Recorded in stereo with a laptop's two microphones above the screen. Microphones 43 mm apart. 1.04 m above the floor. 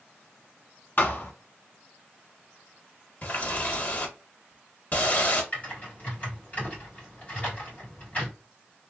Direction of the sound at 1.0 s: 50° left (ahead or behind).